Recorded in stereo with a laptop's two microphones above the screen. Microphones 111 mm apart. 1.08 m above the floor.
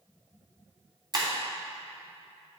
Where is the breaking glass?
40° right (ahead or behind), 3 m.